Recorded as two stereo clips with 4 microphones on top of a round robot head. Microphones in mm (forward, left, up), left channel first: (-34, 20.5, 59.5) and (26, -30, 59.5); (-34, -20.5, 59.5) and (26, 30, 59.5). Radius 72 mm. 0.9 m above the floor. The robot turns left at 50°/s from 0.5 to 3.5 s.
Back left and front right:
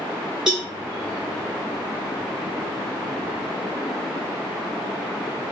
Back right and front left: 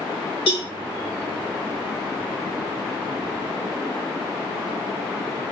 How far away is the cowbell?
About 4 m.